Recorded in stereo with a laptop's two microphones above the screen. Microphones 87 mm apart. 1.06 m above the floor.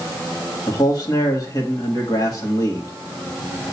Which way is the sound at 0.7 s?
45° left (ahead or behind).